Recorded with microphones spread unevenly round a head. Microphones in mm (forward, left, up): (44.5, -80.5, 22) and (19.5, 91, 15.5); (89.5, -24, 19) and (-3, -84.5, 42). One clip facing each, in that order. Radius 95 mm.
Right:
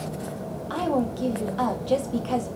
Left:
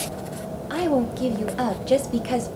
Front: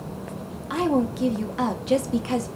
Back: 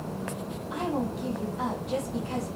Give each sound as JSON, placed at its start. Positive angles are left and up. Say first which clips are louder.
{"t": 0.7, "sound": "a woman speaking", "louder": "left 3 dB, front 8 dB", "azimuth_deg": 30, "distance_m": 0.7}